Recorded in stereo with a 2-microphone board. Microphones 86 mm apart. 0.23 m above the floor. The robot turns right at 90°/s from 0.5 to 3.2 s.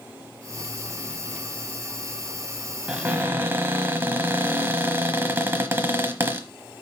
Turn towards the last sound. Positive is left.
turn(degrees=-25)  # may be behind; listen again after turning